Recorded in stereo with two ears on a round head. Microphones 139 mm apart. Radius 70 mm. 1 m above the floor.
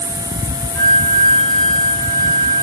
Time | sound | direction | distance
0.8 | a flute | centre (ahead or behind) | 1.4 m